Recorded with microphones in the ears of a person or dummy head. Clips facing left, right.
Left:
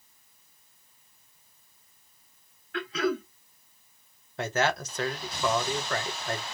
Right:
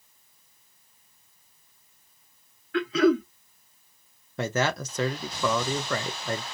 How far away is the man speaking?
About 1.1 m.